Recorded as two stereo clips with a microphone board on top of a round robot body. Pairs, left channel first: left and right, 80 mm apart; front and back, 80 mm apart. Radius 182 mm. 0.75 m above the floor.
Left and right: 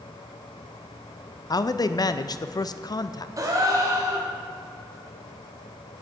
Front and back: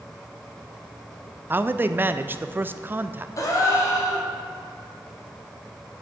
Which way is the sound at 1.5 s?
120° left.